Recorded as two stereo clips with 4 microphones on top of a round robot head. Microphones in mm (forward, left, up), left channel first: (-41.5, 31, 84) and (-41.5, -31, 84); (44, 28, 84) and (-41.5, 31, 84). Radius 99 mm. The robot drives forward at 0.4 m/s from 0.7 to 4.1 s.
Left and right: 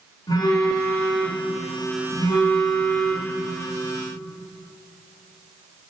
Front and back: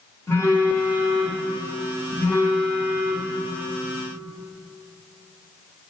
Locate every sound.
0.3 s a phone buzzing: 55° left, 3.5 m; by 3.4 s 75° left, 3 m